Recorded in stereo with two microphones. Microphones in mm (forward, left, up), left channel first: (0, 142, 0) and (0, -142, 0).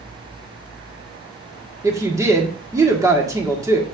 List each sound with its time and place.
1.8 s a woman speaking: 10° right (ahead or behind), 1.7 m